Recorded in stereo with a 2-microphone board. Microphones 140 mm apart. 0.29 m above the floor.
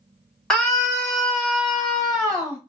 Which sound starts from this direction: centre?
A scream, at 0.5 s.